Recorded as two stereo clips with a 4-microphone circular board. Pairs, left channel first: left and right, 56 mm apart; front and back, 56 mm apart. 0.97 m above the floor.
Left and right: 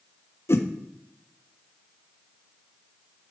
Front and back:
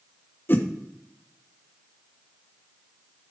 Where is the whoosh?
50° left, 0.7 m.